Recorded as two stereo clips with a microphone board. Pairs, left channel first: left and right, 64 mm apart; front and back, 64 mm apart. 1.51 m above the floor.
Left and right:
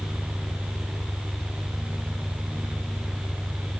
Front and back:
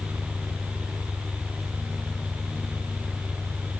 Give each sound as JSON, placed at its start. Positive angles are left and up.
{"t": 0.0, "sound": "an engine running", "azimuth_deg": -45}